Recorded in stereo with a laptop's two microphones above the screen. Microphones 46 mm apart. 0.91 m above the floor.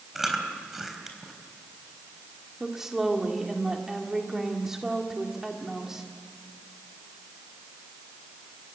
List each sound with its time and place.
0.1 s chewing: 5° right (ahead or behind), 3 m
2.6 s a woman speaking: 10° right (ahead or behind), 2.0 m